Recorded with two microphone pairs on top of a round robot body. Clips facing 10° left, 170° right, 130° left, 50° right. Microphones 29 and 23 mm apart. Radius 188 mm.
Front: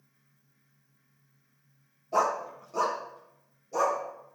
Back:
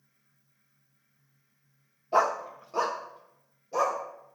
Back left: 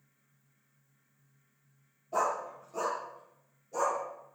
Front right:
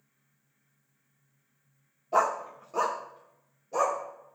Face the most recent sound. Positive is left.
turn(degrees=-100)